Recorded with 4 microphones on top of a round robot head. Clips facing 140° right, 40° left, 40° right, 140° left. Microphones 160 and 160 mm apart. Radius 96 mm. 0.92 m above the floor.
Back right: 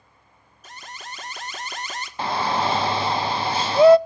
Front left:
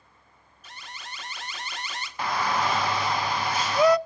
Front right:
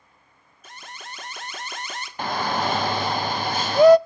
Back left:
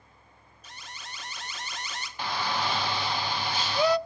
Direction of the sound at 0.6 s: 90° right.